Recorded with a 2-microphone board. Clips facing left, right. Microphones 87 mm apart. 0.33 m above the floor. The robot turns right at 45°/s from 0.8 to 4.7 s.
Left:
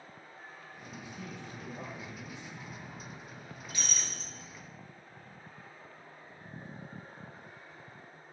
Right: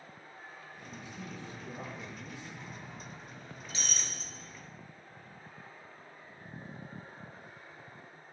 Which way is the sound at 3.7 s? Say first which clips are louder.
Even; 20° right (ahead or behind).